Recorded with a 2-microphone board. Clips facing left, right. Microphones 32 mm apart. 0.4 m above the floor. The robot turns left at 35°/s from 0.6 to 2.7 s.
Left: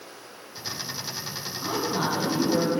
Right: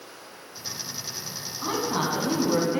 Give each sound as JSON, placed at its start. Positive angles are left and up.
{"t": 1.6, "sound": "a woman speaking", "azimuth_deg": -20, "distance_m": 4.0}